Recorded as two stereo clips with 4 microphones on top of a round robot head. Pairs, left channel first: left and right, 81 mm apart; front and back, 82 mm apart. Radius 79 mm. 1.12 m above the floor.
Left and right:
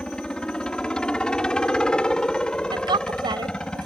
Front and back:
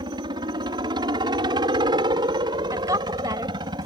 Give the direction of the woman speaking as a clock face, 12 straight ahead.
4 o'clock.